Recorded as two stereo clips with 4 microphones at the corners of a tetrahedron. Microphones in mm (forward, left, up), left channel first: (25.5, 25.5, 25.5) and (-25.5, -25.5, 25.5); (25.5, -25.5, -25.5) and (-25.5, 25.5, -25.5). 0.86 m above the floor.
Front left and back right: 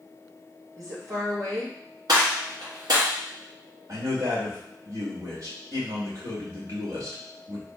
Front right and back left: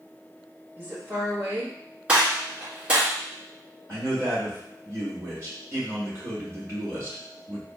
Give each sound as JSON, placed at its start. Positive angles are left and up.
{"t": 0.8, "sound": "a woman speaking", "azimuth_deg": -170, "distance_m": 1.6}
{"t": 2.1, "sound": "a gunshot", "azimuth_deg": -155, "distance_m": 2.5}
{"t": 3.9, "sound": "a man speaking", "azimuth_deg": -175, "distance_m": 2.0}